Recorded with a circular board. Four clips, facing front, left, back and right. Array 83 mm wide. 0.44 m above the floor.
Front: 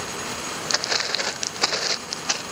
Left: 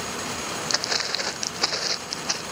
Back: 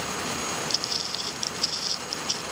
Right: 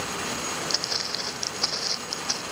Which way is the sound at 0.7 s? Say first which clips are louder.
Left 4 dB, front 7 dB; 30° left.